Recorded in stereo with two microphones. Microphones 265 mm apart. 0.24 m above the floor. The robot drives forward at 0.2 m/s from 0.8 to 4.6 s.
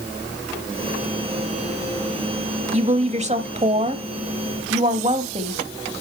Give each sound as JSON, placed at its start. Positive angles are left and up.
{"t": 2.7, "sound": "a woman speaking", "side_deg": -25, "distance_m": 1.0}